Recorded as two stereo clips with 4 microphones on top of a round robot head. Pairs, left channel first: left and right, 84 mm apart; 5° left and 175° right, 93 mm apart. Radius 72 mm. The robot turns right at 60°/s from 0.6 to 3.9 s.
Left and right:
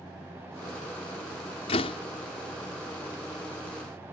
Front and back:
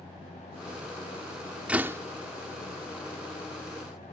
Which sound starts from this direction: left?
A door slam, at 1.7 s.